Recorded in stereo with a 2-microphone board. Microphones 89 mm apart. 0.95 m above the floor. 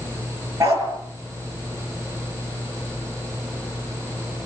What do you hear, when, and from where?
0.6 s a dog barking: 35° right (ahead or behind), 7 m